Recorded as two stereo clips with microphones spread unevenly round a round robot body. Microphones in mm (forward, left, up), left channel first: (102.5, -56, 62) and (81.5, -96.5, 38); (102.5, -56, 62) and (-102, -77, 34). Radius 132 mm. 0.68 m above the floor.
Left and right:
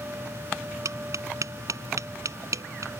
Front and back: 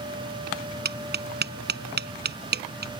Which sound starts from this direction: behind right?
Tapping, at 0.8 s.